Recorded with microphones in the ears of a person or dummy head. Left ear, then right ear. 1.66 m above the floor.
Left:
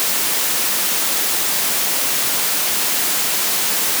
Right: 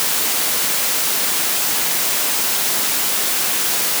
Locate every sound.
Only background noise.